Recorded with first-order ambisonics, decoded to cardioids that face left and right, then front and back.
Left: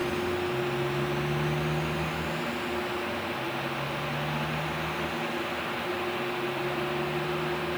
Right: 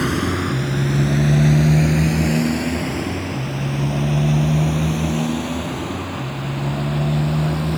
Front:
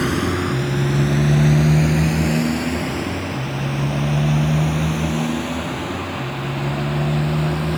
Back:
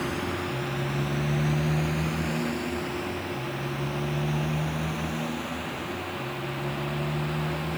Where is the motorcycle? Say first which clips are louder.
Right 7 dB, front 9 dB; 50° right; by 7.8 s 55° right.